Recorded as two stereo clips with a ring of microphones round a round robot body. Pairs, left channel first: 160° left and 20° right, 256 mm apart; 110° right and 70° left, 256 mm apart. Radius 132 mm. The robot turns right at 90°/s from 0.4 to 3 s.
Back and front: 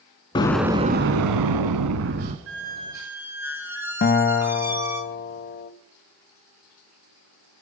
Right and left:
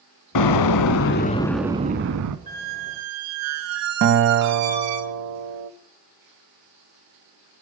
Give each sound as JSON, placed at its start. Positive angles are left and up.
{"t": 0.3, "sound": "an explosion", "azimuth_deg": -130, "distance_m": 0.6}
{"t": 2.5, "sound": "a squeak", "azimuth_deg": 10, "distance_m": 1.1}
{"t": 4.0, "sound": "a guitar", "azimuth_deg": 105, "distance_m": 0.5}